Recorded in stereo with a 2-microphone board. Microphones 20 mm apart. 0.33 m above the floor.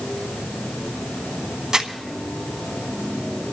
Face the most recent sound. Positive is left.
turn(degrees=-40)  # may be behind; listen again after turning